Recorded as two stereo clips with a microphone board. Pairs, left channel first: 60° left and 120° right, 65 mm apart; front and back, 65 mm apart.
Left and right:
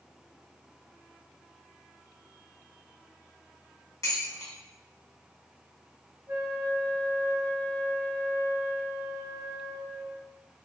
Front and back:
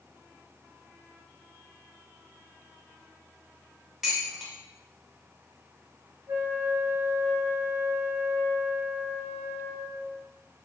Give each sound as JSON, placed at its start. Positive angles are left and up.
{"t": 4.0, "sound": "dishes clattering", "azimuth_deg": 95, "distance_m": 1.1}
{"t": 6.3, "sound": "a flute", "azimuth_deg": -150, "distance_m": 0.9}